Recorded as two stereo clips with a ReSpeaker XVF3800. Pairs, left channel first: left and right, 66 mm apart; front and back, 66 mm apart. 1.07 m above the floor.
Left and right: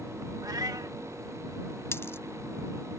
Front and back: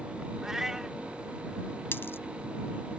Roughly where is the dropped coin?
Ahead left.